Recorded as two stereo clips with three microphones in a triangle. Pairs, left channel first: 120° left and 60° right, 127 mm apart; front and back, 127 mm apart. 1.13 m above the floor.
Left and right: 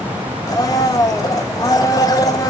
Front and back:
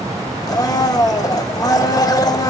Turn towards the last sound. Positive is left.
turn(degrees=60)